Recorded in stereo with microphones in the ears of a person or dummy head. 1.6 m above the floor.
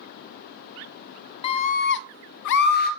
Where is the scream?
35° left (ahead or behind), 0.7 m; by 2.9 s 40° left (ahead or behind), 0.8 m.